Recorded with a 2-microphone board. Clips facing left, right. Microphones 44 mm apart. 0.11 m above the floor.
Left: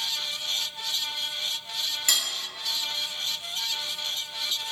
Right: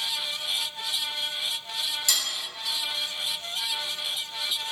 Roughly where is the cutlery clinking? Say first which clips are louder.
Left 2 dB; left.